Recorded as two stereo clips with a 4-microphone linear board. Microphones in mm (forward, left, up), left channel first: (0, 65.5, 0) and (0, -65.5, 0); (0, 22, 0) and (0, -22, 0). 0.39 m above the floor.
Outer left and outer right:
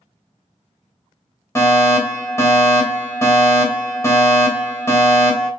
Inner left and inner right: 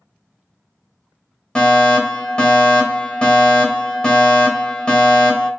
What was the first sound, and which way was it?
A fire alarm, 20° left (ahead or behind).